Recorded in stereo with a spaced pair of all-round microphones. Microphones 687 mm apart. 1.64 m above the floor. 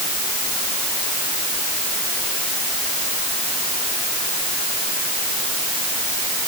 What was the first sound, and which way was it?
Only background noise.